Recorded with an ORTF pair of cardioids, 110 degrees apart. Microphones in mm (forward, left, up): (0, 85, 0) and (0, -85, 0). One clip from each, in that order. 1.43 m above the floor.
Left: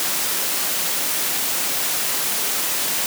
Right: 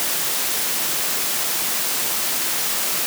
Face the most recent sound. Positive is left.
No sound to turn to.